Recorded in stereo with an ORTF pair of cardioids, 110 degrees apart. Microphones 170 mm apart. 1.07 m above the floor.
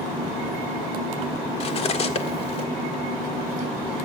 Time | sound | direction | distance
1.6 | cutlery clinking | 40° left | 1.8 m